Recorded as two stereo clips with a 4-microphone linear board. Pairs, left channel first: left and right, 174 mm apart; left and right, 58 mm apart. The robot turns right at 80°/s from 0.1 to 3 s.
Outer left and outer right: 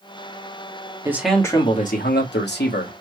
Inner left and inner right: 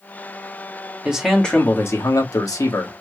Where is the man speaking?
20° right, 1.4 m; by 2.9 s 130° left, 1.4 m.